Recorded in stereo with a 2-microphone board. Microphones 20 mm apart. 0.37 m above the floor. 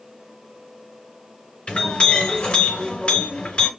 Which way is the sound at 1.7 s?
65° left (ahead or behind).